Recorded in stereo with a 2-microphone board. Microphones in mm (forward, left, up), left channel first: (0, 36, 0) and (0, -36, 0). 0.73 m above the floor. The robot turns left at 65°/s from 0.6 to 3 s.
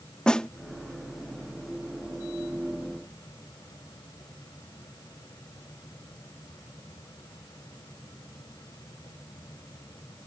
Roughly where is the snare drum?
Centre.